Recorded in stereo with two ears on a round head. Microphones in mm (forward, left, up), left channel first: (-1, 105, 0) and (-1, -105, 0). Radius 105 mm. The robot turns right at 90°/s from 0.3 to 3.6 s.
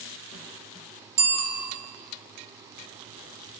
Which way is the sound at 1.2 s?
140° right.